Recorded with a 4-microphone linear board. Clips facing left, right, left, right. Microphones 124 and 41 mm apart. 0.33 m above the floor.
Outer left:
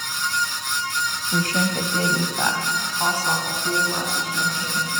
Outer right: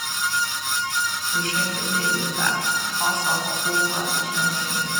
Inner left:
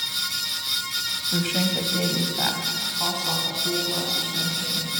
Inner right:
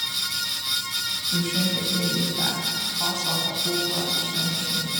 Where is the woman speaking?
55° left (ahead or behind), 1.6 m; by 4.9 s 10° right (ahead or behind), 3.5 m.